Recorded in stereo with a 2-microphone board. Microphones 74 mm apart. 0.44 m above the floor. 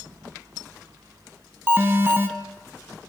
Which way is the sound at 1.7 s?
30° right (ahead or behind).